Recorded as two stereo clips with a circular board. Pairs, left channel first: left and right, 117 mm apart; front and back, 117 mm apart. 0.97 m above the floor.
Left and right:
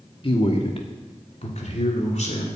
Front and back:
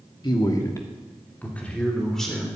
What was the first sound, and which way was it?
A man speaking, 50° left.